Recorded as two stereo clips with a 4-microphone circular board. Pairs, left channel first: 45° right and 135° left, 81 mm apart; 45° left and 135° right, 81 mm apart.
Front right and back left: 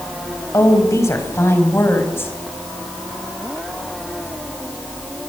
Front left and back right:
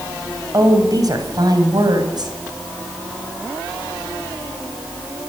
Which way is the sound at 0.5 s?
95° right.